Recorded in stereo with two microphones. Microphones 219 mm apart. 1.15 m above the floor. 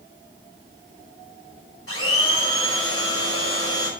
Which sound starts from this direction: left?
A blender, at 1.9 s.